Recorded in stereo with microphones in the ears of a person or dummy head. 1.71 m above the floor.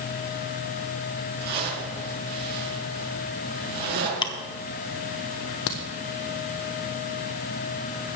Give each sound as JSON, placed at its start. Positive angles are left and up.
{"t": 1.4, "sound": "a zipper", "side_deg": -55, "distance_m": 4.5}
{"t": 4.2, "sound": "ticking", "side_deg": 25, "distance_m": 1.2}
{"t": 5.7, "sound": "a crack", "side_deg": 70, "distance_m": 1.2}